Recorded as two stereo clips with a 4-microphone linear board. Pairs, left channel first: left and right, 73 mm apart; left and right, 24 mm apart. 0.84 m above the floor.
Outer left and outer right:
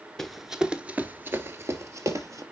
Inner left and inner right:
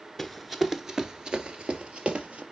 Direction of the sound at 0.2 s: 5° left (ahead or behind).